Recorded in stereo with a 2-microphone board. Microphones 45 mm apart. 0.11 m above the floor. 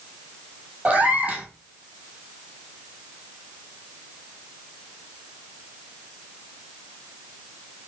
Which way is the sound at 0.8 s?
30° right (ahead or behind).